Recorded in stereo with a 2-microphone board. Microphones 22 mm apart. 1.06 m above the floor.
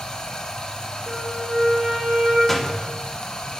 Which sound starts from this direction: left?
Running water, at 0.0 s.